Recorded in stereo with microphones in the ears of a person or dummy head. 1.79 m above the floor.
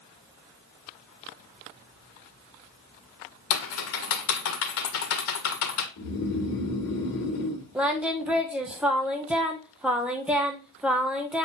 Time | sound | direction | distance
3.5 | typing on a keyboard | 65° left (ahead or behind) | 1.4 m
6.0 | snoring | 55° left (ahead or behind) | 2 m
7.8 | singing | 5° right (ahead or behind) | 0.8 m